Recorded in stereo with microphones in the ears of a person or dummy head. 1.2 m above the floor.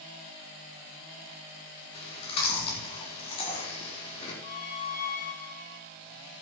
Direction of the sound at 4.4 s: 45° left (ahead or behind).